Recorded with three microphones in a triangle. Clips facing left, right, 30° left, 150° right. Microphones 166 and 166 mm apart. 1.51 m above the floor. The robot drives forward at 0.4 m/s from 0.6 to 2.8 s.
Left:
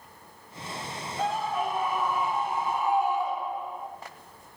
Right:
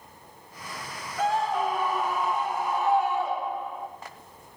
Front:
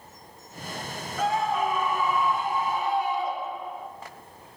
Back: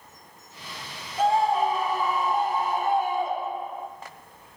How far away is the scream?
About 1.8 m.